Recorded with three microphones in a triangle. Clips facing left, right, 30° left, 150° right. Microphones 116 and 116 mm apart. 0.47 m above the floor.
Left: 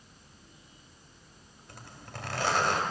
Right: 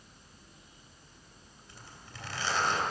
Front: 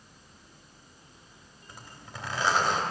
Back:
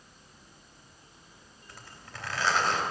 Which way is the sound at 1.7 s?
100° left.